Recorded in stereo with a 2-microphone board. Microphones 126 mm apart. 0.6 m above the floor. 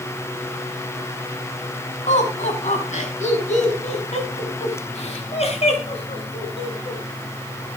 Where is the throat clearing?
No throat clearing in this recording.